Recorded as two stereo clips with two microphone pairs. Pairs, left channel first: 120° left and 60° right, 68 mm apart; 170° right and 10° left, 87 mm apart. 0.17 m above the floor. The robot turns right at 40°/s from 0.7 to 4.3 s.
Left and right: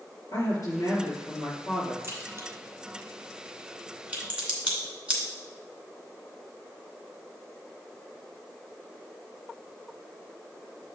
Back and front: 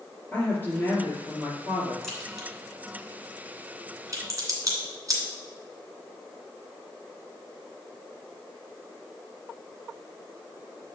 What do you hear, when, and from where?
0.3 s a woman speaking: 125° left, 3.5 m; by 1.9 s 175° left, 3.5 m
2.0 s a crack: 85° right, 2 m; by 5.2 s 10° left, 2 m